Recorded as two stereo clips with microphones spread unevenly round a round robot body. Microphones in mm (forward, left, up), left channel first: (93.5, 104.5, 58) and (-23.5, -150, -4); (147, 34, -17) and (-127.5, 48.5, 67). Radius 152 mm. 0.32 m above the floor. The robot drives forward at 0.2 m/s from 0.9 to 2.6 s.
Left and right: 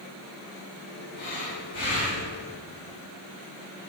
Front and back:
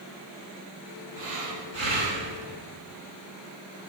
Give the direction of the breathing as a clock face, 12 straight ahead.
6 o'clock.